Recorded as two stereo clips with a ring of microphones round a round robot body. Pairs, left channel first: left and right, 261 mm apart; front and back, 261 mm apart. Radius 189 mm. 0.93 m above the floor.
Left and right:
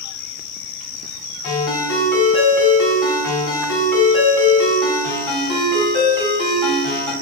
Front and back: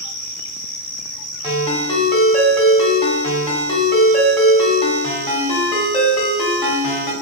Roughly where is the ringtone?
Left.